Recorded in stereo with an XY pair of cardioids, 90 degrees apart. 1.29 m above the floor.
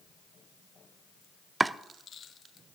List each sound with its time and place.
1.6 s chopping: 25° right, 0.5 m